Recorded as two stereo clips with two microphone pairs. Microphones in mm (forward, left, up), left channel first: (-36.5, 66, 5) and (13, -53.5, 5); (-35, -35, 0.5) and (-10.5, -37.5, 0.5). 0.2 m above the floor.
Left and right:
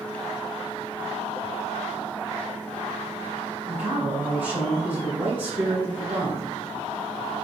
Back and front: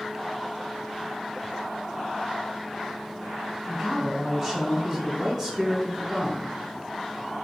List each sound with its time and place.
3.7 s a man speaking: 125° right, 1.2 m